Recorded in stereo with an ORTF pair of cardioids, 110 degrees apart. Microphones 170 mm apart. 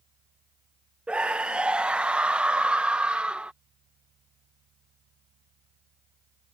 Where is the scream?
5° right.